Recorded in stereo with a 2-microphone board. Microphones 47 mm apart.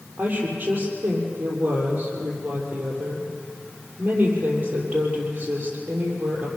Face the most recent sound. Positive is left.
turn(degrees=-30)  # may be behind; listen again after turning